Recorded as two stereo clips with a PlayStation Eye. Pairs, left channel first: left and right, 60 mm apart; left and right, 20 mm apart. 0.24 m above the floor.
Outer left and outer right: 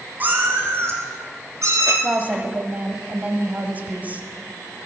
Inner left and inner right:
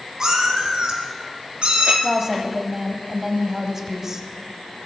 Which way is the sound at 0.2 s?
30° right (ahead or behind).